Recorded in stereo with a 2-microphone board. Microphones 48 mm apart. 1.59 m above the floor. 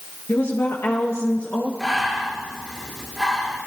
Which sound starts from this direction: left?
A woman speaking, at 0.3 s.